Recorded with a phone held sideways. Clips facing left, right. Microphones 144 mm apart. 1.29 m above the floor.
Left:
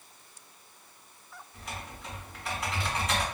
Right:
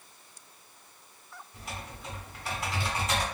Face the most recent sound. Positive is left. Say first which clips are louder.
# even
turn(degrees=-5)  # may be behind; listen again after turning